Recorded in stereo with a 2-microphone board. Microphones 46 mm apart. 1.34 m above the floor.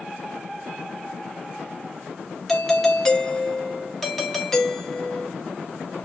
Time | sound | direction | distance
2.5 | a doorbell | 5° left (ahead or behind) | 0.8 m